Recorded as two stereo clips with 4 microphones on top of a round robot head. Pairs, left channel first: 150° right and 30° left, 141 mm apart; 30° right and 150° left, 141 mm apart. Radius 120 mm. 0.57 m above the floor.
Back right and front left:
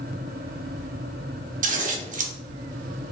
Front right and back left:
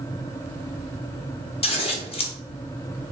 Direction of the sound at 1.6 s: 15° left.